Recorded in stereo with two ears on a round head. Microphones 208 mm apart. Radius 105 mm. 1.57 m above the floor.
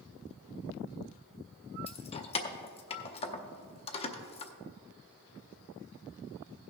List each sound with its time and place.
1.9 s keys jangling: 25° left (ahead or behind), 0.7 m